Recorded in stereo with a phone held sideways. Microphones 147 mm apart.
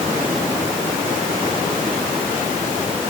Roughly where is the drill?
I don't hear a drill.